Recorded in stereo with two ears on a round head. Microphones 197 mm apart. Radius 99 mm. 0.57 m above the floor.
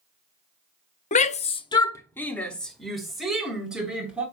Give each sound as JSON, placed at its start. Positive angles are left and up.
{"t": 1.1, "sound": "a shout", "side_deg": 35, "distance_m": 0.7}